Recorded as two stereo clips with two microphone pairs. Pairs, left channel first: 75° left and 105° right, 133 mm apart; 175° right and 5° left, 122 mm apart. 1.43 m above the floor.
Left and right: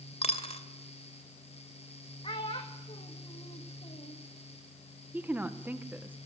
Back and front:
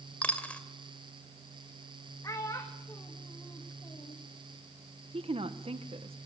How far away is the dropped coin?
About 2 m.